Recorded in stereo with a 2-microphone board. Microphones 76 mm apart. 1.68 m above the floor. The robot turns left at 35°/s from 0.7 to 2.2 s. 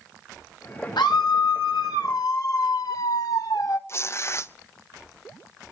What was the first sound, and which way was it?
A scream, 100° left.